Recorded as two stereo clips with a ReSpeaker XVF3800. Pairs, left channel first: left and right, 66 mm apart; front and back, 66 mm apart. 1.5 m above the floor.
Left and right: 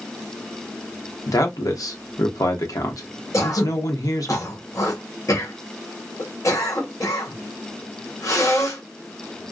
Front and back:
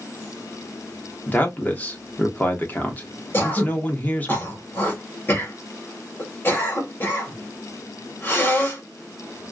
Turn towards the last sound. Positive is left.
turn(degrees=55)